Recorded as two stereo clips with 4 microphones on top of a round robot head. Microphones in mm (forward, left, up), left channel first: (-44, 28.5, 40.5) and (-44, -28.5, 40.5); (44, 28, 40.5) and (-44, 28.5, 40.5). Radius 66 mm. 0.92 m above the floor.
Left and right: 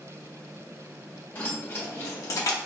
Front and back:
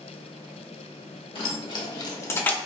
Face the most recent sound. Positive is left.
turn(degrees=75)